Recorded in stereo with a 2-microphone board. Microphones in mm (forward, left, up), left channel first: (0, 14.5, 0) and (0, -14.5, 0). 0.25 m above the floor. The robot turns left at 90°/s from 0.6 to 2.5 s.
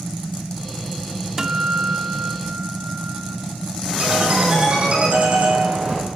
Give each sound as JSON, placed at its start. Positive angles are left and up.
{"t": 1.4, "sound": "a guitar", "azimuth_deg": -20, "distance_m": 0.6}
{"t": 4.0, "sound": "a ringtone", "side_deg": -45, "distance_m": 7.5}